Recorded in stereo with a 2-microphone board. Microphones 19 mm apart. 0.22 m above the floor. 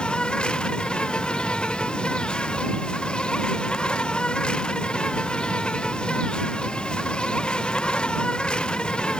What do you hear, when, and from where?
0.0 s an insect: 50° left (ahead or behind)